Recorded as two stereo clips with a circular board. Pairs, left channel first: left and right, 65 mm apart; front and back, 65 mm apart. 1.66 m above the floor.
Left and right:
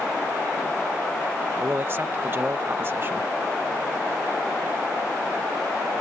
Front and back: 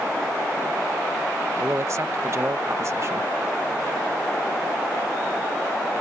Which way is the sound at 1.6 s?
140° right.